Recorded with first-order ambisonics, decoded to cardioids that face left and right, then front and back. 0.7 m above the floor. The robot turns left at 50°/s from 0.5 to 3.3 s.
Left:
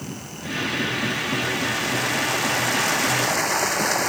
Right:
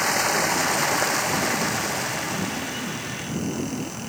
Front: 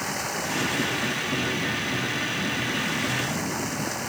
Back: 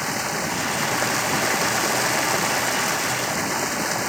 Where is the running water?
105° right; by 4.1 s 115° left.